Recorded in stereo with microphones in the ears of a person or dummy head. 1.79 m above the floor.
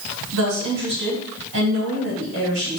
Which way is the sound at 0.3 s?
60° right (ahead or behind).